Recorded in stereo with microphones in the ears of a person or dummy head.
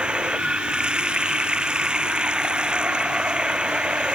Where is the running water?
5° right (ahead or behind).